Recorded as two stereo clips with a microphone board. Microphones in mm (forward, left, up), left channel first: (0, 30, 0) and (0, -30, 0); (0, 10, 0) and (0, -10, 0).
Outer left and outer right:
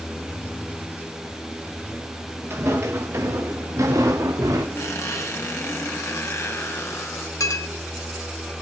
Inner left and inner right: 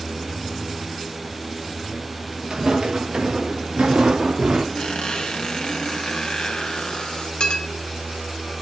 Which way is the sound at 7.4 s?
60° left (ahead or behind).